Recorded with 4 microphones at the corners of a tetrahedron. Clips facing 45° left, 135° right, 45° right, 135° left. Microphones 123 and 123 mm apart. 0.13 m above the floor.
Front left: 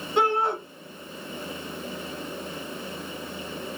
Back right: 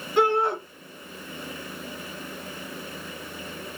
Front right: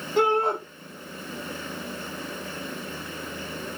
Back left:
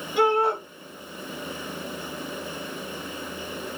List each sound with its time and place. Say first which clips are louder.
0.2 s a shout: back right 2 dB, back left 1 dB; 25° right, 2.0 m